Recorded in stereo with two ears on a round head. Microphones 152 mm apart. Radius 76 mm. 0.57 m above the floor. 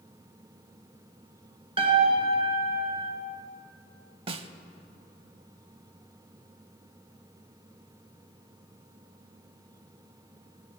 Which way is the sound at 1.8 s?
30° right (ahead or behind).